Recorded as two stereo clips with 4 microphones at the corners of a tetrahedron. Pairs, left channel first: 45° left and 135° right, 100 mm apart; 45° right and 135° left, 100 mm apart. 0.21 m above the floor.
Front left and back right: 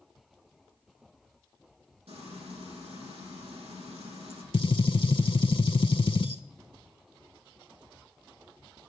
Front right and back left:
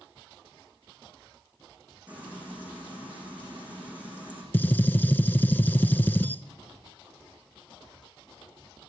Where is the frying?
150° right, 7 m.